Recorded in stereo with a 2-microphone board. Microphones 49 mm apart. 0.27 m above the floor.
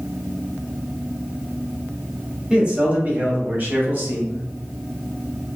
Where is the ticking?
No ticking in this recording.